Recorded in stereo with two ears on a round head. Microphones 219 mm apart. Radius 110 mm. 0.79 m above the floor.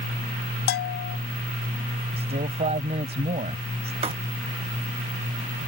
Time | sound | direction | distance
0.7 | a bell | 40° left (ahead or behind) | ?
2.2 | a man speaking | 25° right (ahead or behind) | ?
4.0 | writing | 25° right (ahead or behind) | ?